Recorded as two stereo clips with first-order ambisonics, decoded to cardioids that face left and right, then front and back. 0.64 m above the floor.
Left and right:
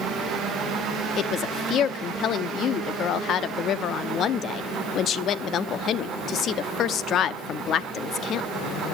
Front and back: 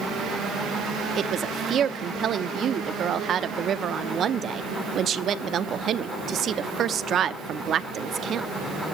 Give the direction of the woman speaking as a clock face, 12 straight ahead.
8 o'clock.